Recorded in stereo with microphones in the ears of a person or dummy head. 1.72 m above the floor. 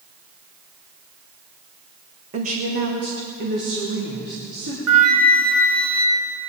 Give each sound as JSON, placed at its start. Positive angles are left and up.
{"t": 2.3, "sound": "a woman speaking", "side_deg": -35, "distance_m": 1.2}
{"t": 4.9, "sound": "a flute", "side_deg": -85, "distance_m": 2.0}